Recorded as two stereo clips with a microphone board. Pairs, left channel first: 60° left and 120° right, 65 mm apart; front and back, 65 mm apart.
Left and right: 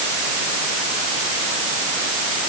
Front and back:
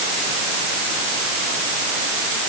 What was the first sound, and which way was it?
Only background noise.